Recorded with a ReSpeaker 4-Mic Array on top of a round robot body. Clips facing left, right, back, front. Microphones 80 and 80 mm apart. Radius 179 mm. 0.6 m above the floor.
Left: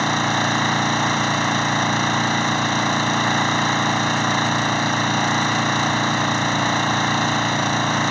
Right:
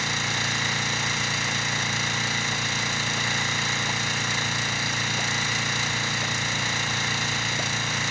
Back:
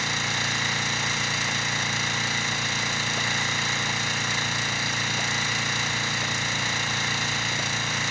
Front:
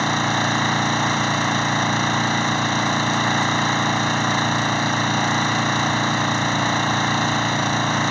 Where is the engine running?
45° left.